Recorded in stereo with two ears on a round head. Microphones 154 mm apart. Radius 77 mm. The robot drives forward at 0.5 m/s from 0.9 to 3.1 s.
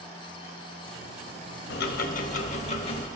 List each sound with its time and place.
1.7 s ticking: 65° left (ahead or behind), 0.7 m; by 3.1 s 35° left (ahead or behind), 1.1 m